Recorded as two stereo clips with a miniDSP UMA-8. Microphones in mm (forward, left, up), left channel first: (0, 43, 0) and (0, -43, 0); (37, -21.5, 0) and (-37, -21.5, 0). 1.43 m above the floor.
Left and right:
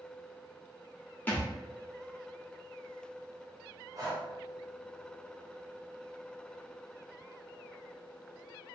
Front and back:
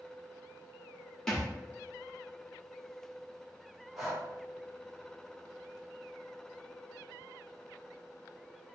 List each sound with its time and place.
1.3 s a thud: 80° left, 1.0 m
4.0 s breathing: 95° right, 0.9 m